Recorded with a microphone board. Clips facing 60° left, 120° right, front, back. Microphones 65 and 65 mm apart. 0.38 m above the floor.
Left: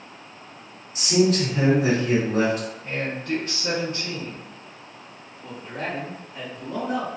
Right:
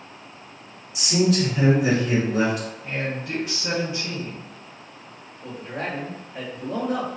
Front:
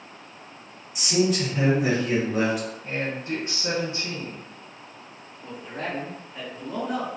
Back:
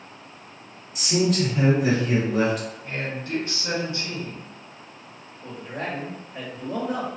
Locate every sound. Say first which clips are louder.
0.9 s a man speaking: left 1 dB, back 1 dB; 85° left, 1.7 m
2.8 s a man speaking: left 1 dB, front 2 dB; 40° right, 1.3 m
5.4 s a man speaking: right 1 dB, back 1 dB; 140° right, 1.1 m